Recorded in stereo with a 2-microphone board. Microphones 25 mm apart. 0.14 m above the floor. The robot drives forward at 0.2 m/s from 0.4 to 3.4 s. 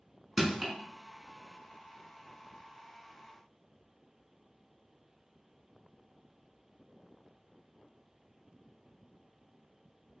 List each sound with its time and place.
0.4 s crushing: 15° right (ahead or behind), 1.0 m